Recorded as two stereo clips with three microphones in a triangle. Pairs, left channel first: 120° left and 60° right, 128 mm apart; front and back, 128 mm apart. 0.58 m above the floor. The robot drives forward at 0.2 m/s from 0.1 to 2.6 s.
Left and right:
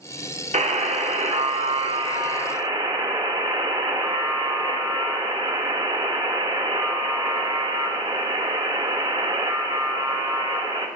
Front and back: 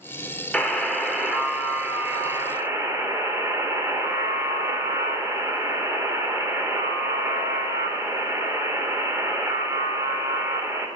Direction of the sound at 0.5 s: 85° right.